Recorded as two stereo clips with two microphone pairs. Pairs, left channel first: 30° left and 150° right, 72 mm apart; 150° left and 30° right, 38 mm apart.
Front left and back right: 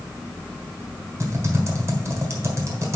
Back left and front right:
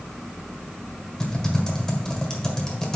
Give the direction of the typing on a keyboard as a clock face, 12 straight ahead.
5 o'clock.